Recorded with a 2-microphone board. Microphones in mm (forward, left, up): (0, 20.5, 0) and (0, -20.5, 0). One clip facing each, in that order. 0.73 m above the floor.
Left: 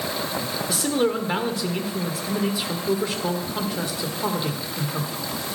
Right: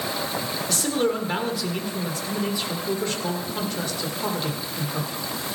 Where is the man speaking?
10° left (ahead or behind), 1.8 m.